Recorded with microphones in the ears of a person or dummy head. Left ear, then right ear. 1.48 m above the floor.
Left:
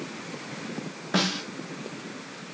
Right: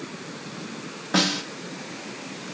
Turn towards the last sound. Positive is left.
turn(degrees=0)  # may be behind; listen again after turning